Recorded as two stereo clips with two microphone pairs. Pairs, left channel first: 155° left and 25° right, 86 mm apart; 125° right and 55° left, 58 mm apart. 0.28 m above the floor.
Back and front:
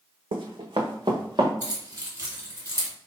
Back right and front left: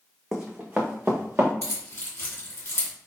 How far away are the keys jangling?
About 2 m.